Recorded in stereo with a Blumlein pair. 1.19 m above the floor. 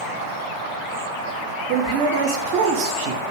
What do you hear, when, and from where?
1.7 s a man speaking: 45° right, 0.6 m